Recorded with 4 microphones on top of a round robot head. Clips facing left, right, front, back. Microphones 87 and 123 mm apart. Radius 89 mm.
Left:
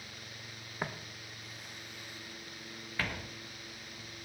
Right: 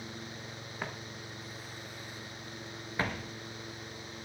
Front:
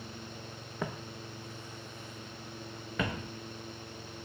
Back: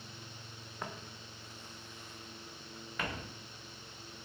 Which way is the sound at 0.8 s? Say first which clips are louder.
Left 2 dB, front 6 dB; 10° left.